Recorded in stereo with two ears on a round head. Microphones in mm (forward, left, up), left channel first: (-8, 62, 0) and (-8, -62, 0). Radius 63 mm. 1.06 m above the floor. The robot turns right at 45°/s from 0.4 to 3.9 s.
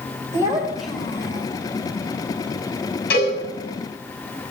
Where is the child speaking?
20° right, 3.5 m; by 1.5 s 30° left, 3.5 m.